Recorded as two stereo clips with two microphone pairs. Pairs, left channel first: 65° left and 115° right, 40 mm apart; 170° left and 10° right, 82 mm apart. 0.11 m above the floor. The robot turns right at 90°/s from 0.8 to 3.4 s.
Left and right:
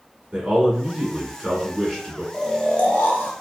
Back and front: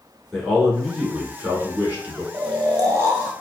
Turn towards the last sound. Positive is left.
turn(degrees=70)